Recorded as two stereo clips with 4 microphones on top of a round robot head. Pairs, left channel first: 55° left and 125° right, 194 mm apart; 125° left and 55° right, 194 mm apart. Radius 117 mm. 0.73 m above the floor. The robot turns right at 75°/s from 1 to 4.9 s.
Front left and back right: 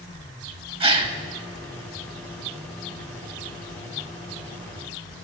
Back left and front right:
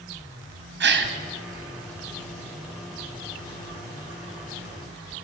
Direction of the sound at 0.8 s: 65° right.